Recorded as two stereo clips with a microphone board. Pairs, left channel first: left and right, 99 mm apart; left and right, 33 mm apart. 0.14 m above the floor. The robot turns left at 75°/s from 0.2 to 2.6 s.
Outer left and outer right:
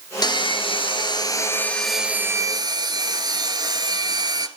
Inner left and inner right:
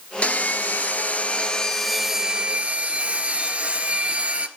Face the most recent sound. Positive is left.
turn(degrees=-50)